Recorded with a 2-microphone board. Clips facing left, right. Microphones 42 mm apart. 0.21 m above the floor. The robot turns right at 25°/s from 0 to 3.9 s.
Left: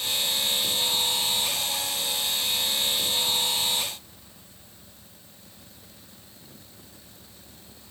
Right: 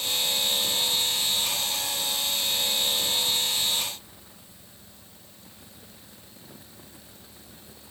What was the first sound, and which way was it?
Only background noise.